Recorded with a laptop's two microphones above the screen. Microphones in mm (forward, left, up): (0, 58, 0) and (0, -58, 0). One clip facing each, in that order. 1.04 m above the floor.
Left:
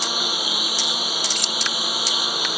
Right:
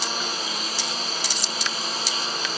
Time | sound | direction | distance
0.0 | a lawn mower | 10° left (ahead or behind) | ?
1.4 | keys jangling | 70° left (ahead or behind) | ?